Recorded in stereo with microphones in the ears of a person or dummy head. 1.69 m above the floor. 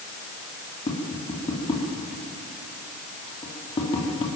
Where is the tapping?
25° left (ahead or behind), 3 m.